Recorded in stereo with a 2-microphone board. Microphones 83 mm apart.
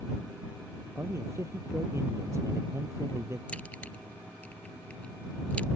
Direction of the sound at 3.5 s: 15° left (ahead or behind).